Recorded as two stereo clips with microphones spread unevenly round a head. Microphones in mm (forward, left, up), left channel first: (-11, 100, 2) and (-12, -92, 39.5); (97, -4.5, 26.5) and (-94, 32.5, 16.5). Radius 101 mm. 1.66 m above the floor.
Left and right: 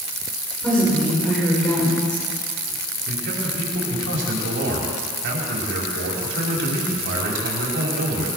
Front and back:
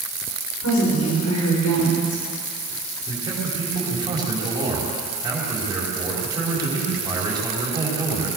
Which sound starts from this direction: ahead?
A woman speaking, at 0.6 s.